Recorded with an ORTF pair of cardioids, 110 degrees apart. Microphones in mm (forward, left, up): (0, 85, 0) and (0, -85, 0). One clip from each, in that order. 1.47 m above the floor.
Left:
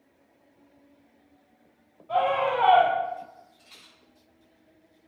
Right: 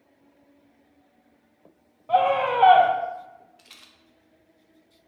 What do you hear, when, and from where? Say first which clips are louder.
2.1 s a scream: right 3 dB; 50° right, 0.7 m
3.6 s a rattle: right 2 dB; 60° right, 0.7 m